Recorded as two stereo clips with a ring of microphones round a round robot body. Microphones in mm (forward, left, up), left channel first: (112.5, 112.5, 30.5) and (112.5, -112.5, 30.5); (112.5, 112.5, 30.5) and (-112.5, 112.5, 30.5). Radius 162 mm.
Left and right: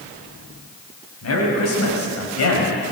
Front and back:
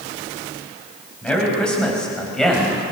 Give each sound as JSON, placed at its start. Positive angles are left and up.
{"t": 1.2, "sound": "a man speaking", "azimuth_deg": 85, "distance_m": 7.5}